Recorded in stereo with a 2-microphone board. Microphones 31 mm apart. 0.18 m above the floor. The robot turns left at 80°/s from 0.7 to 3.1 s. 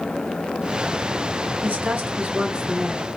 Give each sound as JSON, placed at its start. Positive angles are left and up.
{"t": 1.6, "sound": "a woman speaking", "azimuth_deg": -60, "distance_m": 2.5}